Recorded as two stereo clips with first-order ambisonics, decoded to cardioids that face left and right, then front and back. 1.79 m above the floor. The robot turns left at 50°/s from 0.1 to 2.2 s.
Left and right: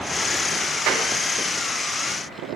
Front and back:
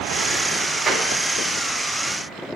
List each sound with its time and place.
0.9 s a clap: 105° right, 3.5 m; by 1.1 s 115° right, 3.5 m